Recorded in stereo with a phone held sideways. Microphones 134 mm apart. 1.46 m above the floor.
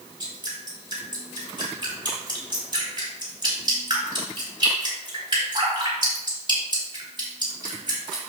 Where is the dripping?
35° right (ahead or behind), 4.5 m.